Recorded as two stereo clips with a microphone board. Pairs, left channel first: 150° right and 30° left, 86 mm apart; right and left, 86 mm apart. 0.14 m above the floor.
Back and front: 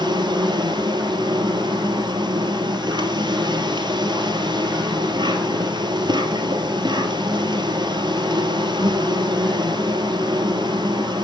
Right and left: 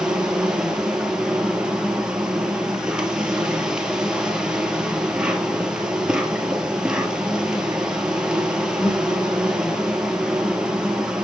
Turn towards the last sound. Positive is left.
turn(degrees=10)